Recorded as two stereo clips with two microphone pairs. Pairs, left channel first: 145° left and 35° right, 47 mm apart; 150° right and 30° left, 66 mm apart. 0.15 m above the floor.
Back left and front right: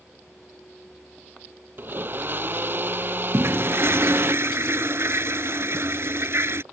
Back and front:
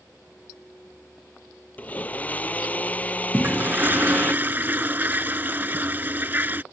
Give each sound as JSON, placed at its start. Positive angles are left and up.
{"t": 1.8, "sound": "a blender", "azimuth_deg": -80}
{"t": 3.3, "sound": "a toilet flushing", "azimuth_deg": -25}